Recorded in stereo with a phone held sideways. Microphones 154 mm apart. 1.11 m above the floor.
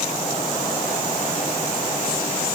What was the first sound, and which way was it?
Only background noise.